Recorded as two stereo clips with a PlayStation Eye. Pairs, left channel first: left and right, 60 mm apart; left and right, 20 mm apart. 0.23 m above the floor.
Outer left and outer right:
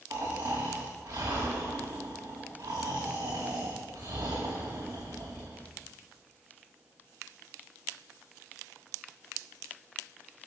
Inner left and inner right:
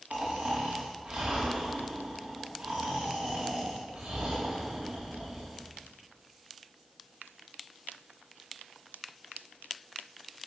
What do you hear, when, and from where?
0.1 s snoring: 75° right (ahead or behind), 4.5 m